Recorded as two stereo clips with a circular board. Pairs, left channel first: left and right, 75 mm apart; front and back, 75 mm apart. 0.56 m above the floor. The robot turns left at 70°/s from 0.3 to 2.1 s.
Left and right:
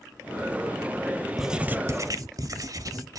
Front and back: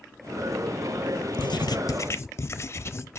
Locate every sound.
1.4 s writing: straight ahead, 0.6 m; by 3.2 s 50° right, 0.6 m